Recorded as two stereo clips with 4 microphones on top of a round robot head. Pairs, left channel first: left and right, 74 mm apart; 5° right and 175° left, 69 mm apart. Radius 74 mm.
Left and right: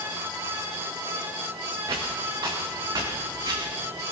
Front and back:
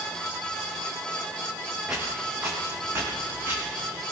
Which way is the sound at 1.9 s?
110° right.